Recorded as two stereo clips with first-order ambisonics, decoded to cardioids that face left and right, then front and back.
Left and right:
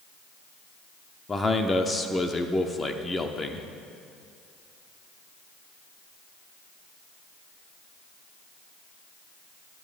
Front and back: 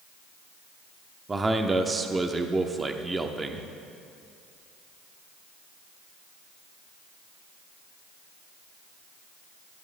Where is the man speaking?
135° left, 0.7 m.